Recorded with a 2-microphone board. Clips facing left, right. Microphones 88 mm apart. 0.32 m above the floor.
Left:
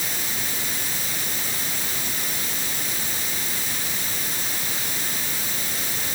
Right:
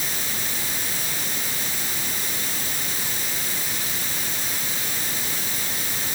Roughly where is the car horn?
I don't hear a car horn.